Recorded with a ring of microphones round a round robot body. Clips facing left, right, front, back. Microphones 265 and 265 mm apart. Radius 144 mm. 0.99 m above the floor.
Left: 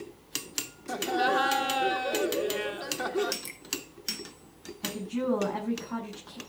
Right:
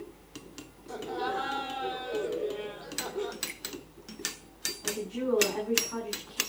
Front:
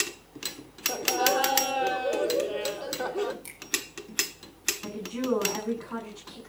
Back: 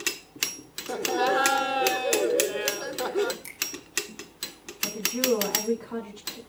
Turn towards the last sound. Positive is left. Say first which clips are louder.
# left 2 dB, back 2 dB
turn(degrees=70)